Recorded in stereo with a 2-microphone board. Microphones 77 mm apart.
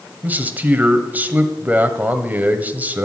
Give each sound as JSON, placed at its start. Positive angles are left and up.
{"t": 0.2, "sound": "a man speaking", "side_deg": -20, "distance_m": 1.2}